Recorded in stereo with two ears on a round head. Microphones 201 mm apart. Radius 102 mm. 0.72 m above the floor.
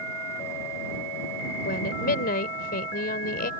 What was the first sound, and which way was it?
A woman speaking, 45° left (ahead or behind).